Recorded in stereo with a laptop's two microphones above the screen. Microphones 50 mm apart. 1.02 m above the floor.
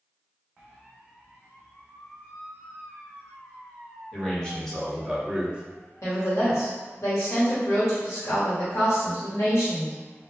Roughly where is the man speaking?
Left.